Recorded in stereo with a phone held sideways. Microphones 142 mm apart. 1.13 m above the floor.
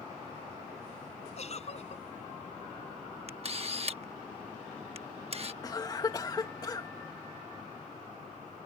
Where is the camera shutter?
45° right (ahead or behind).